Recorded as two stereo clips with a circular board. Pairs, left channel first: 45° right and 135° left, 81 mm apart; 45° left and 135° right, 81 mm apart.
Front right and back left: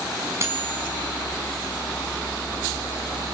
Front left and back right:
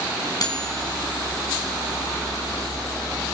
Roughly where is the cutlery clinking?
Left.